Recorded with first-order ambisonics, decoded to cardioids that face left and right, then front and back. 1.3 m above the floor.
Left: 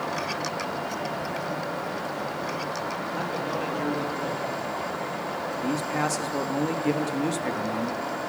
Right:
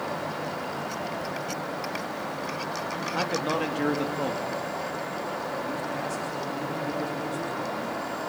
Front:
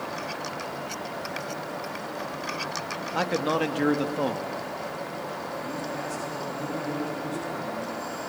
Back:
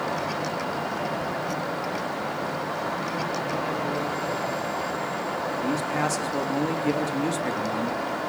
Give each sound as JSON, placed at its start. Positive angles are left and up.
{"t": 3.1, "sound": "a man speaking", "azimuth_deg": -20, "distance_m": 2.5}
{"t": 5.6, "sound": "a man speaking", "azimuth_deg": 135, "distance_m": 2.5}